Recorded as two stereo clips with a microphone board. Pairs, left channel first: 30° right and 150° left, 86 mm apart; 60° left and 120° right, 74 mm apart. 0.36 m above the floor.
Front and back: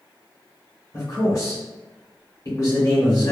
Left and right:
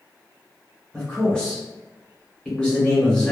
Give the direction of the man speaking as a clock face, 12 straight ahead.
12 o'clock.